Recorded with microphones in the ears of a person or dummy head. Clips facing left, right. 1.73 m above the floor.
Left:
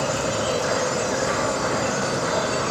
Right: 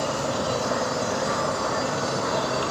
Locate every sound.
0.0 s an insect: 40° left (ahead or behind), 0.8 m